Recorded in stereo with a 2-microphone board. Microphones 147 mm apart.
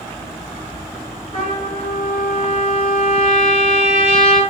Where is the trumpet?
40° left (ahead or behind), 8 m.